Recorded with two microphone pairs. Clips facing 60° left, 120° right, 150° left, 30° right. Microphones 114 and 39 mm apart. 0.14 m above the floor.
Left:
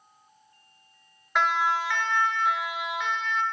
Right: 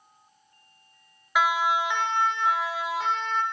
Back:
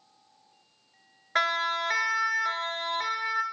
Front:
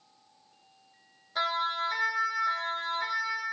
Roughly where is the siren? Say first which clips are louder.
Right 1 dB, back 3 dB; behind left.